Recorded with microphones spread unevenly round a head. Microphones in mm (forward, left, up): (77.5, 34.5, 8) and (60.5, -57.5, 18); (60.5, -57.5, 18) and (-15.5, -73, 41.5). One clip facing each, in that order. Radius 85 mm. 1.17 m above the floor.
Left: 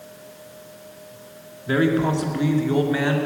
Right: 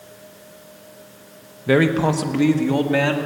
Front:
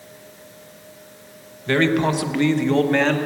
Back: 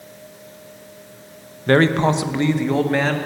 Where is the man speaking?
125° right, 1.1 m; by 3.2 s 80° right, 2 m.